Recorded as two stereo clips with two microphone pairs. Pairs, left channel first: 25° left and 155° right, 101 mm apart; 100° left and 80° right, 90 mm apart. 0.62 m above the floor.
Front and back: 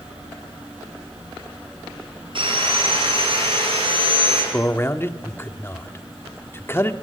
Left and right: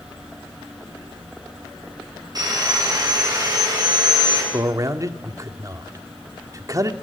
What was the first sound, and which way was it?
Sawing, 125° right.